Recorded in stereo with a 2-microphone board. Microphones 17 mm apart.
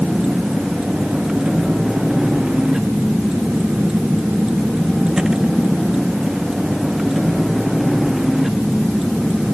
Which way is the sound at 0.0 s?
40° right (ahead or behind).